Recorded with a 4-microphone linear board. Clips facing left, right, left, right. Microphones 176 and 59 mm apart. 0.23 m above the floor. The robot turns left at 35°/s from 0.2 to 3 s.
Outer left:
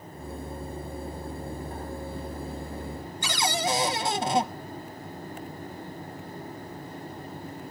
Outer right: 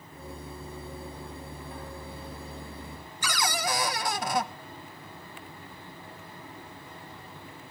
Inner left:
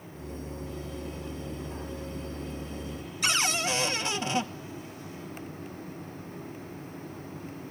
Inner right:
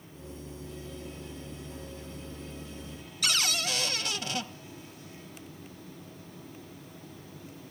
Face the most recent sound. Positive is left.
turn(degrees=25)  # may be behind; listen again after turning